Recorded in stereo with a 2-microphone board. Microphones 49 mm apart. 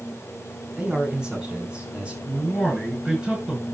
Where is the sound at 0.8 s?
15° right (ahead or behind), 4 m; by 2.2 s 20° right (ahead or behind), 5.5 m.